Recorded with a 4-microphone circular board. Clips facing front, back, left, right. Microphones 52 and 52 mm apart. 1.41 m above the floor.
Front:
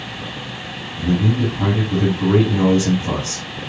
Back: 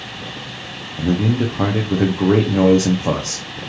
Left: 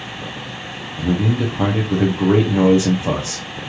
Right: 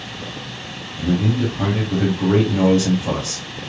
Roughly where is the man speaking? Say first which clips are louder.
Back 1 dB, even; behind left.